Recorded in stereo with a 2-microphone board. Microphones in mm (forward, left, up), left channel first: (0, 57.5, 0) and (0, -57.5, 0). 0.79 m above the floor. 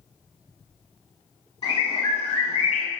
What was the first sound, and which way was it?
A bird, 55° left (ahead or behind).